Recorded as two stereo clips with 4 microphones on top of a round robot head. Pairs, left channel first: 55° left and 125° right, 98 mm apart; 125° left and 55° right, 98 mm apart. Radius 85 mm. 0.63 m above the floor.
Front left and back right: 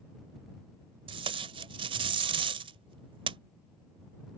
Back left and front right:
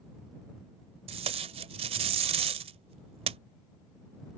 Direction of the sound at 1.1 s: 85° right.